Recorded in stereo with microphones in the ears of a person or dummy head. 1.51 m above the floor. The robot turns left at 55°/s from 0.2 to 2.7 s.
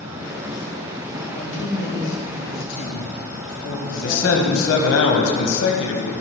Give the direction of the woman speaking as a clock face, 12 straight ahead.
7 o'clock.